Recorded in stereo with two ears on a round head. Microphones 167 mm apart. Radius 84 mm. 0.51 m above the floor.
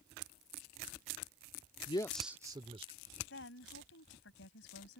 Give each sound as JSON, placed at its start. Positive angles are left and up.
{"t": 1.9, "sound": "a man speaking", "side_deg": 30}
{"t": 3.3, "sound": "a woman speaking", "side_deg": 75}